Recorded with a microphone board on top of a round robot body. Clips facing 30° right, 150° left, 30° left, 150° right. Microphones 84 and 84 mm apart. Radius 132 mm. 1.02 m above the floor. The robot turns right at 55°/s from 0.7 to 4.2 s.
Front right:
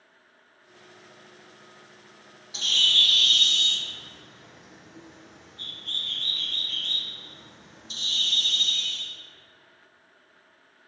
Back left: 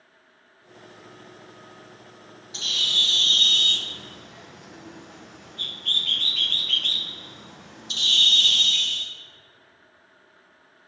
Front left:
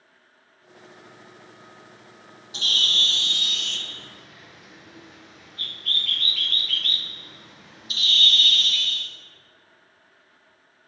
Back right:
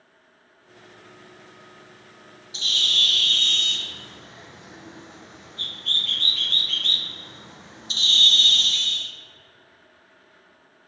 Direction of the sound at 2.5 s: 55° left.